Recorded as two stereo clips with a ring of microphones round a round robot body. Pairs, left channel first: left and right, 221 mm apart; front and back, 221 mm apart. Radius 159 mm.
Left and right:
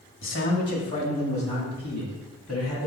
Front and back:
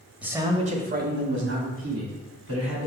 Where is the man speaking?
95° left, 1.7 m; by 2.9 s 175° right, 4 m.